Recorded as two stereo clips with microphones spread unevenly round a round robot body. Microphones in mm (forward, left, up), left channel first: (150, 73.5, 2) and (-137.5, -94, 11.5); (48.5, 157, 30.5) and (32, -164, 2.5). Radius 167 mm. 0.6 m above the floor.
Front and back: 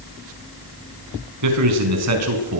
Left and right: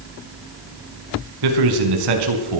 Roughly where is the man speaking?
Right.